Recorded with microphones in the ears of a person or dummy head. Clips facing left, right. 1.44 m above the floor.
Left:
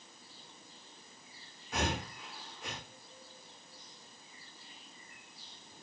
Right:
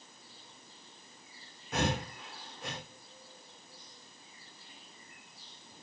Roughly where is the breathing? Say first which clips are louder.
Right 3 dB; right.